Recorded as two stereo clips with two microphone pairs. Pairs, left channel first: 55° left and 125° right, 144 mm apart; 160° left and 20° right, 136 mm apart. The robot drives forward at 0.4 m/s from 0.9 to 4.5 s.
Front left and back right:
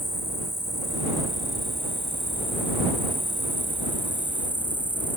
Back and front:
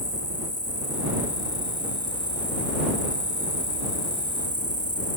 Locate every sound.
0.0 s an insect: 20° right; by 5.2 s 25° right